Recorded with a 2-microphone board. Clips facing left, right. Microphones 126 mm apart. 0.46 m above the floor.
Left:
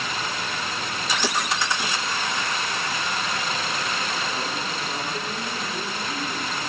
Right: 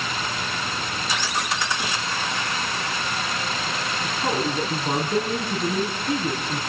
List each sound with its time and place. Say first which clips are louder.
1.2 s breaking glass: left 4 dB; 85° left, 4 m
4.0 s a man speaking: right 4 dB; 70° right (ahead or behind), 5 m